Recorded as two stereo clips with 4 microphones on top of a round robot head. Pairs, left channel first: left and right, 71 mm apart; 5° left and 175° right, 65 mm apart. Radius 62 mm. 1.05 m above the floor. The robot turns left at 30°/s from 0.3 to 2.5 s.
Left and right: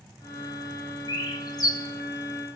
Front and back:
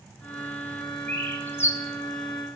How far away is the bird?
About 3.5 m.